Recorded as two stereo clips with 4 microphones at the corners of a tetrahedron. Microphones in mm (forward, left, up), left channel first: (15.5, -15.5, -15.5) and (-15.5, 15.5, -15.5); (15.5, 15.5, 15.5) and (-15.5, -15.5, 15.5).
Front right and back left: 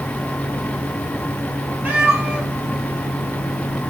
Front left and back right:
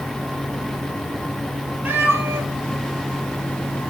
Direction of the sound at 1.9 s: Straight behind.